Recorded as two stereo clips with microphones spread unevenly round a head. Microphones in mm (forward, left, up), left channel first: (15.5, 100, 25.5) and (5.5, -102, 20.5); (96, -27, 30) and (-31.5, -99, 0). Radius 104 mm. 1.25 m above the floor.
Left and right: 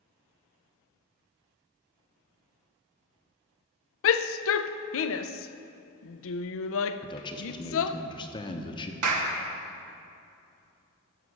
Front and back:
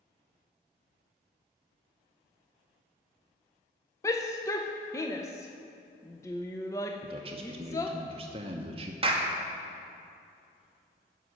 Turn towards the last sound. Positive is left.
turn(degrees=-100)